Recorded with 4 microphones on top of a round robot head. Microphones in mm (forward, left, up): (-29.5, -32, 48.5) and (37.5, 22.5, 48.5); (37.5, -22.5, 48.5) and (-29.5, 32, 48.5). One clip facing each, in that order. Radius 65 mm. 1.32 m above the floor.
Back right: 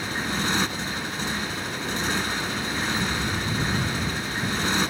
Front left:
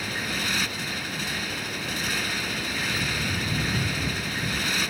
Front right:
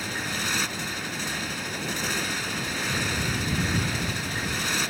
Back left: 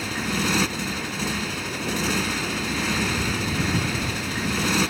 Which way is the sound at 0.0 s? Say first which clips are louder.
Back right 3 dB, back left 5 dB; 155° left.